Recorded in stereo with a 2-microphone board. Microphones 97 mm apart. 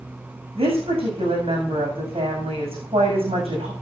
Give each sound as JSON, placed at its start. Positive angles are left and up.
{"t": 0.6, "sound": "a woman speaking", "side_deg": -80, "distance_m": 7.5}